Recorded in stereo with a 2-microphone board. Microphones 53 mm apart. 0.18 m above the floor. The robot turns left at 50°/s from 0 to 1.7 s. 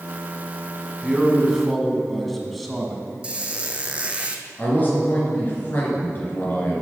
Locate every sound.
1.0 s a man speaking: 10° right (ahead or behind), 1.4 m; by 3.0 s 5° left (ahead or behind), 1.4 m
3.2 s a squeak: 20° right (ahead or behind), 0.9 m
4.6 s a man speaking: 35° left (ahead or behind), 3 m